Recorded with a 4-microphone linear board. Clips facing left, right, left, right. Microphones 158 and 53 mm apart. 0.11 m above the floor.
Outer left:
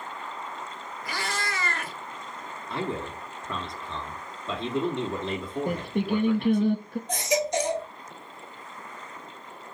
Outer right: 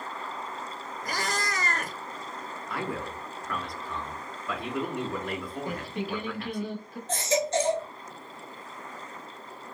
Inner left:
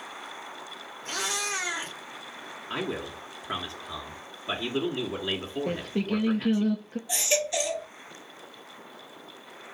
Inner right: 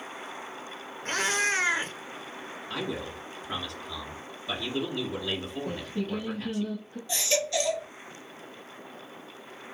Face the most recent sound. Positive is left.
turn(degrees=15)  # may be behind; listen again after turning